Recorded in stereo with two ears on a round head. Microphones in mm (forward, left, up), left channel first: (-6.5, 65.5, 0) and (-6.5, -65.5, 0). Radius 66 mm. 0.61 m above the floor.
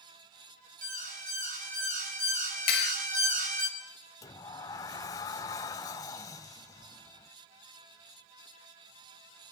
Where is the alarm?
55° right (ahead or behind), 5 m.